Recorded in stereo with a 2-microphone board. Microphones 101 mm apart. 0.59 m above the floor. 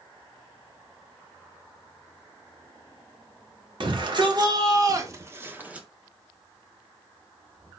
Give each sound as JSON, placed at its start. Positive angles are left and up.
{"t": 3.8, "sound": "a shout", "side_deg": -55, "distance_m": 1.5}